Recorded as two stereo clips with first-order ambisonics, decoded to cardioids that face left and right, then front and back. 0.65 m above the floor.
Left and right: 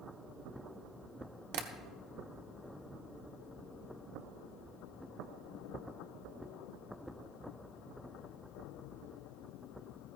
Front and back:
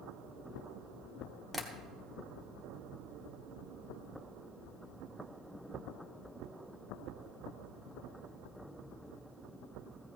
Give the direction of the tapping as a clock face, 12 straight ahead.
3 o'clock.